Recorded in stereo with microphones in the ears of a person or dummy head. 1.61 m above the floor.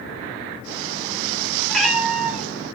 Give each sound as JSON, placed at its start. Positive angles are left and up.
{"t": 1.7, "sound": "a cat meowing", "side_deg": 10, "distance_m": 2.5}